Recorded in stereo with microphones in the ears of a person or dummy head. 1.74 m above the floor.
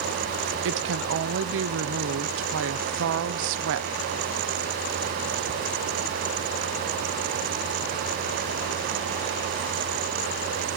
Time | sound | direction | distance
0.7 | a woman speaking | 60° right (ahead or behind) | 0.8 m